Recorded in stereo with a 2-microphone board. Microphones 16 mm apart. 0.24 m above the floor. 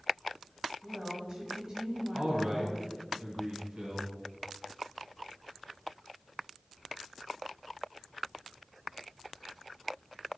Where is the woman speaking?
30° right (ahead or behind), 1.1 m.